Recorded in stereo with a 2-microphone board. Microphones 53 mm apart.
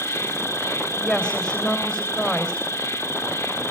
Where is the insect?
60° left (ahead or behind), 0.7 m.